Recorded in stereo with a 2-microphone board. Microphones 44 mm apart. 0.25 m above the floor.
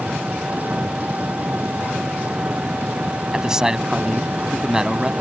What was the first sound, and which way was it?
An engine running, 40° right (ahead or behind).